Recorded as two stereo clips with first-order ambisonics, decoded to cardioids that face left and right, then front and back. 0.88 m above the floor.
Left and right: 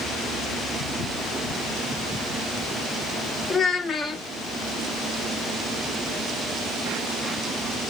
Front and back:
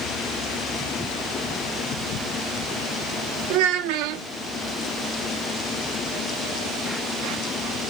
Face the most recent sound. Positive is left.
turn(degrees=165)